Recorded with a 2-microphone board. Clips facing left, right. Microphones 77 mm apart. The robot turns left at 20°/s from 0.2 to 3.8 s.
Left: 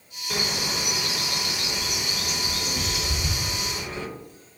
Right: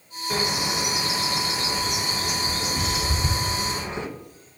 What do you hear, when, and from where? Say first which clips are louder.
0.3 s a bird: right 3 dB; 15° right (ahead or behind), 1.3 m; by 4.1 s 25° right (ahead or behind), 1.3 m